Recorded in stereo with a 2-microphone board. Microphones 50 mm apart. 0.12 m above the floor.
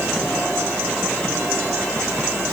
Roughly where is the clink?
I don't hear a clink.